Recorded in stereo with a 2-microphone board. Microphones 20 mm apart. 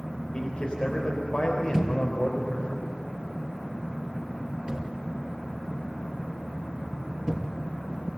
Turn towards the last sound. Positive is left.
turn(degrees=-45)  # may be behind; listen again after turning